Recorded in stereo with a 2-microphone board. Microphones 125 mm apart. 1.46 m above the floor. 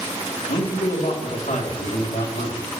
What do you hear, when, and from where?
0.5 s a man speaking: 75° left (ahead or behind), 3 m